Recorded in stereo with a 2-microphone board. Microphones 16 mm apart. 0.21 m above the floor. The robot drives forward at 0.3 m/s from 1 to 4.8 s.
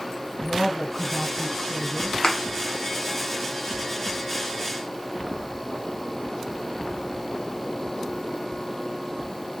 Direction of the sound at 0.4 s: 35° right (ahead or behind).